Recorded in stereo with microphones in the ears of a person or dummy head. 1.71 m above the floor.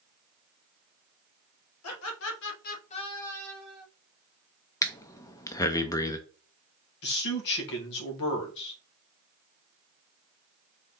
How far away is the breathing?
About 0.5 m.